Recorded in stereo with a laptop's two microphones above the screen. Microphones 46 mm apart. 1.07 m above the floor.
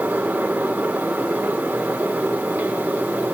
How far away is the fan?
About 2.5 m.